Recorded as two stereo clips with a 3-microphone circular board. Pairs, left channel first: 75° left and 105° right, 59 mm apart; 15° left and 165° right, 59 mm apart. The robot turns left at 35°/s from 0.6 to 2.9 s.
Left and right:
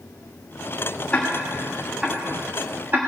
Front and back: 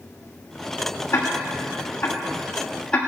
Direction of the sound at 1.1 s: 10° left.